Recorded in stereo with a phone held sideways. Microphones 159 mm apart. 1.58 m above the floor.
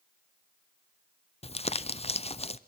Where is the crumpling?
40° left (ahead or behind), 0.5 m.